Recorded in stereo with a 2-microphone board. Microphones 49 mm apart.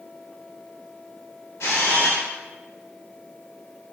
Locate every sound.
1.6 s a camera shutter: 70° left (ahead or behind), 0.8 m